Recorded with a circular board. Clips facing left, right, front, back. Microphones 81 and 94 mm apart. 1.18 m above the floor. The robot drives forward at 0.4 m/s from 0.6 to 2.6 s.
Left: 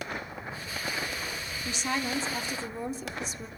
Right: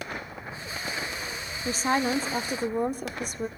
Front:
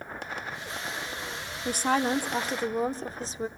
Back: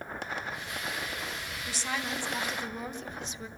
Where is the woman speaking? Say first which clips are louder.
Right 7 dB, front 10 dB; 40° right, 1.3 m; by 3.5 s 55° right, 1.0 m.